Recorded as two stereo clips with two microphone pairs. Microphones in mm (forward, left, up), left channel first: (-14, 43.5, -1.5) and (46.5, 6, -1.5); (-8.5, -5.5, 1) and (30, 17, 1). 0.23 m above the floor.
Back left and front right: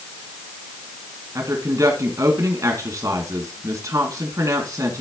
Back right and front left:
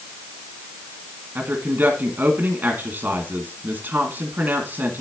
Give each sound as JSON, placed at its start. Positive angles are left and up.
{"t": 1.4, "sound": "a woman speaking", "azimuth_deg": 0, "distance_m": 2.5}